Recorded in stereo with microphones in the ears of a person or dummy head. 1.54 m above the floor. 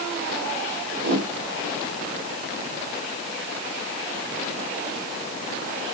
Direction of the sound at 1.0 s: 60° right (ahead or behind).